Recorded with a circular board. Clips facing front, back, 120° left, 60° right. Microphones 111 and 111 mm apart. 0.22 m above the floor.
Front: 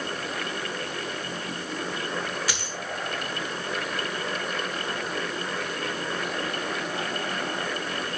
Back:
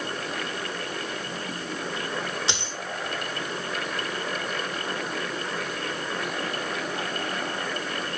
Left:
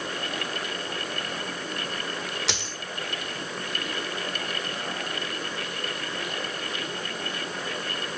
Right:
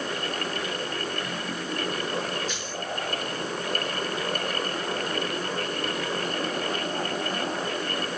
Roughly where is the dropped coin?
Behind left.